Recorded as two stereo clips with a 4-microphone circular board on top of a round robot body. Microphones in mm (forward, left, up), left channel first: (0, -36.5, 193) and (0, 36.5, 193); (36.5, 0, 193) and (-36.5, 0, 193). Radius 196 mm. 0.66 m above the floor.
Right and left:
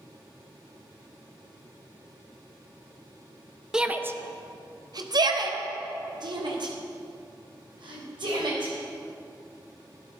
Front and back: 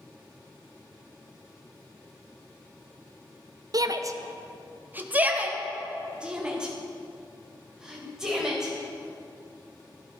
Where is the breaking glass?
I don't hear breaking glass.